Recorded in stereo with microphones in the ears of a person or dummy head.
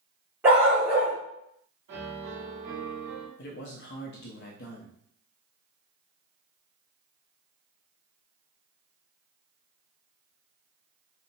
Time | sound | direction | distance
0.4 | a dog barking | 20° right (ahead or behind) | 1.9 m
1.9 | a piano | 50° right (ahead or behind) | 2 m
3.4 | a man speaking | 50° left (ahead or behind) | 0.7 m